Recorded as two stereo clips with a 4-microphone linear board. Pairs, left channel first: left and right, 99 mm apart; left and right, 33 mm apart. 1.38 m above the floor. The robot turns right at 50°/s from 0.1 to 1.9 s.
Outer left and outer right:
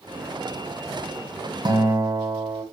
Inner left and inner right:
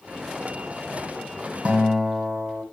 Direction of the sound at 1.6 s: 45° right (ahead or behind).